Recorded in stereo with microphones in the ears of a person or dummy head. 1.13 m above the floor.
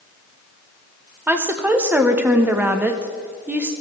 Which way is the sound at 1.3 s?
10° right (ahead or behind).